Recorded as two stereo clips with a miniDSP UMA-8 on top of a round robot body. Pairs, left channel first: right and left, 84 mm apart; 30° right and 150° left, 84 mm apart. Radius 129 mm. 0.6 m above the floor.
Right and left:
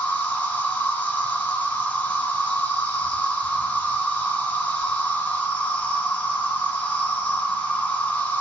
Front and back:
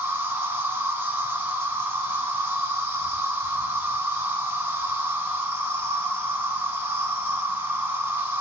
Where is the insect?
155° right, 3 m.